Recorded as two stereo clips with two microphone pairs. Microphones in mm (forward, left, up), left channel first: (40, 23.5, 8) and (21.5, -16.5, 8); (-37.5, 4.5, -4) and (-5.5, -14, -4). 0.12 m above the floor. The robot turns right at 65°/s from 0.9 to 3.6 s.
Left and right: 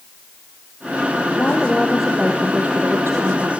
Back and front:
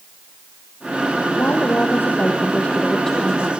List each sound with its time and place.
1.4 s a woman speaking: 115° left, 3.5 m; by 3.5 s 105° right, 3.5 m